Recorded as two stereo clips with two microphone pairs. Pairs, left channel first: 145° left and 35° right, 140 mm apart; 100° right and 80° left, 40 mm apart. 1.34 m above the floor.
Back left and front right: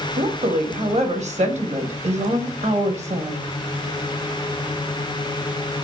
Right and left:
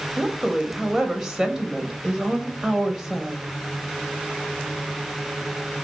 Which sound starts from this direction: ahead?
A woman speaking, at 0.2 s.